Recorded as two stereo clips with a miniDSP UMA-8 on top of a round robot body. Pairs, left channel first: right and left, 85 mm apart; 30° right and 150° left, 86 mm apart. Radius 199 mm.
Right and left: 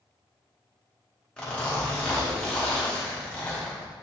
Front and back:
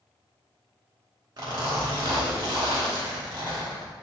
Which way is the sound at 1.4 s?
170° right.